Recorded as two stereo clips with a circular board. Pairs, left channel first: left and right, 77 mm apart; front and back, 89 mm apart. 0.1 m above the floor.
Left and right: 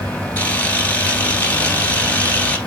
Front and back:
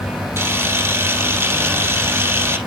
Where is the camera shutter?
145° left, 1.3 m.